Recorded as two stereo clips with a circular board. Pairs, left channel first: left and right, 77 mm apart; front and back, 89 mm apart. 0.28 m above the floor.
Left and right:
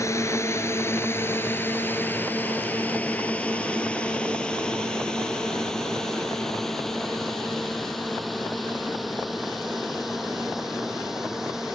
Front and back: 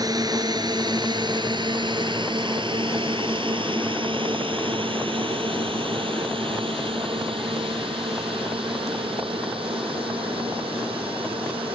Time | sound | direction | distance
0.0 | a drone | 140° left | ?